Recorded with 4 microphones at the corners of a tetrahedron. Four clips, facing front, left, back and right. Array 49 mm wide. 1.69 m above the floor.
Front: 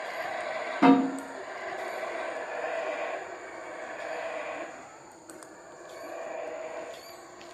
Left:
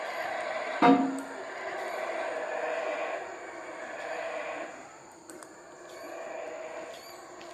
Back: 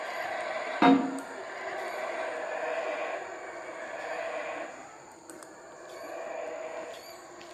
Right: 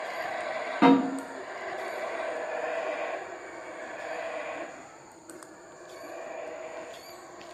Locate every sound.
0.8 s a snare drum: 150° right, 2 m